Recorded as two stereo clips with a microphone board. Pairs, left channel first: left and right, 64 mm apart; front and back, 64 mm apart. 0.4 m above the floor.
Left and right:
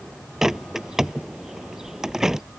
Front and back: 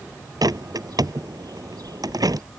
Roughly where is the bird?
Behind.